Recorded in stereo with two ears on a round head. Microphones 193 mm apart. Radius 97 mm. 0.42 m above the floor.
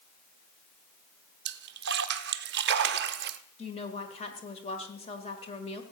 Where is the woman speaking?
30° left (ahead or behind), 1.4 m.